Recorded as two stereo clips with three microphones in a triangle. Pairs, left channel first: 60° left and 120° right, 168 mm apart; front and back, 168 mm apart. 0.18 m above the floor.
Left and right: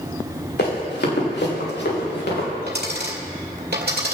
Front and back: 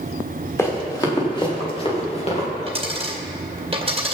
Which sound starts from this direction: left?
Running footsteps, at 0.6 s.